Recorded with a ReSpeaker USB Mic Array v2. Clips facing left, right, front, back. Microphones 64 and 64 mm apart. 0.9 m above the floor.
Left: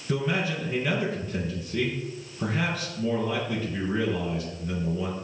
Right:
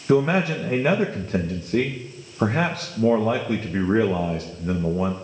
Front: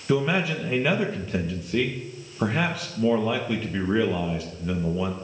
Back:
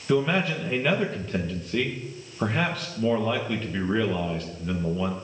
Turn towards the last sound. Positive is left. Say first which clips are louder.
# right 8 dB, even
turn(degrees=-80)